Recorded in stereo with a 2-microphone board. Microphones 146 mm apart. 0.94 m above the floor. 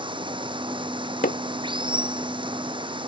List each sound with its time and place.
0.0 s running water: 35° right (ahead or behind)
1.2 s hammering: 80° left